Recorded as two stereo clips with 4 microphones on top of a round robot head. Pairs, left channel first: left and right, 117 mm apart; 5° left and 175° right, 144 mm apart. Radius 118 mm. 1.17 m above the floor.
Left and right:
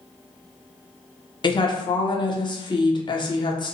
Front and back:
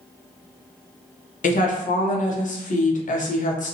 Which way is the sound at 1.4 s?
35° left.